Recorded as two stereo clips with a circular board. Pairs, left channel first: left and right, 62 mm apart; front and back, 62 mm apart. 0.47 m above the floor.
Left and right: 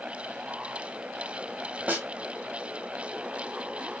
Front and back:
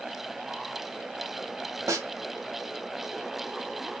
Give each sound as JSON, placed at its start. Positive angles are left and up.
{"t": 1.9, "sound": "a snare drum", "azimuth_deg": -155, "distance_m": 0.6}